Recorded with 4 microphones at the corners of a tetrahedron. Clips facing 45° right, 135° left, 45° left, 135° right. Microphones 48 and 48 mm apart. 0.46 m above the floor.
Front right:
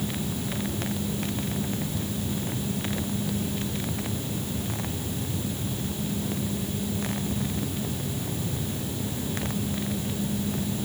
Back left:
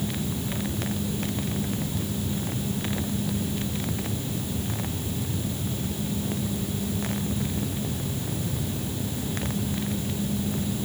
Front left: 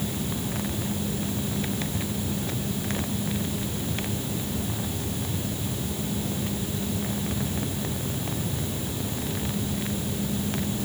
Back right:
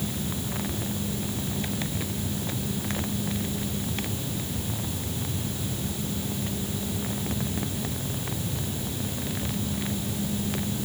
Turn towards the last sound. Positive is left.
No sound to turn to.